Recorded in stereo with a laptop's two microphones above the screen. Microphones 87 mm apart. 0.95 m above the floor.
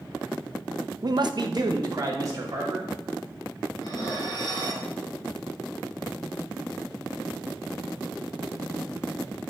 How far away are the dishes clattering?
About 3 m.